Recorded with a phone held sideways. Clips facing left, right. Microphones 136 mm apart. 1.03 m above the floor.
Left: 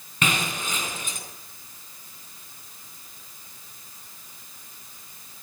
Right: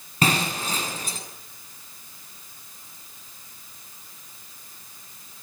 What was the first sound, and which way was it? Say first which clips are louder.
Breaking glass: right 4 dB; 40° right (ahead or behind).